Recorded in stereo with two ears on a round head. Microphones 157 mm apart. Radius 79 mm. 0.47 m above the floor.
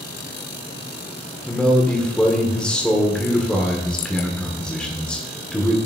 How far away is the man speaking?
About 1.1 m.